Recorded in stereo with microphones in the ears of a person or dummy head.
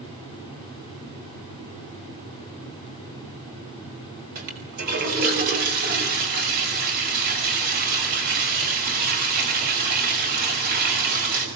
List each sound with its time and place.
4.3 s a toilet flushing: 50° right (ahead or behind), 5 m